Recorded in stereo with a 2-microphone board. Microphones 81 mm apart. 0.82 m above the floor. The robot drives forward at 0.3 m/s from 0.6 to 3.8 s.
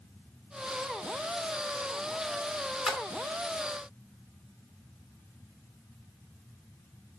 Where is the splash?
10° right (ahead or behind), 1.6 m.